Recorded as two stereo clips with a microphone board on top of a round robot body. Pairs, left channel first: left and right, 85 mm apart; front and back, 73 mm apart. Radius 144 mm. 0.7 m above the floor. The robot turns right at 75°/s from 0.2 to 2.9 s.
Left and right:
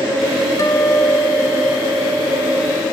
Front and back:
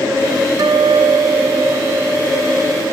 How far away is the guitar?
About 1.1 m.